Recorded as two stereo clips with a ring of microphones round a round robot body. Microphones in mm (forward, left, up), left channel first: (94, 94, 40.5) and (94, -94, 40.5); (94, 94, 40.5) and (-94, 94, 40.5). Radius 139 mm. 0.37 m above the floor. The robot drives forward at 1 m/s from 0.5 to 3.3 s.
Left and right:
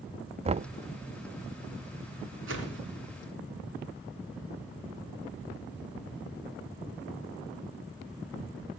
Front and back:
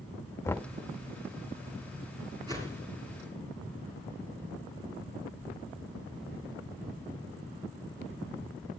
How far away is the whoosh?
About 3.5 m.